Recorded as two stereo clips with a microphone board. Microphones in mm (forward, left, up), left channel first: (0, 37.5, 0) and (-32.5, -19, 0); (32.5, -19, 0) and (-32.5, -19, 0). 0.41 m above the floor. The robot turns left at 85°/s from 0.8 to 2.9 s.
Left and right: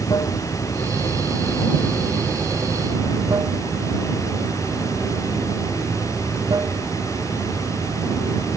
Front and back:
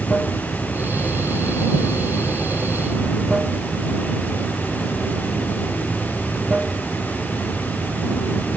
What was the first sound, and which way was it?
Running water, 75° left.